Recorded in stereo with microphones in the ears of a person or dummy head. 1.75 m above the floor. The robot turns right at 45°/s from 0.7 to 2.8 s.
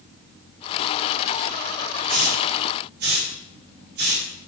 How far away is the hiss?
About 6 m.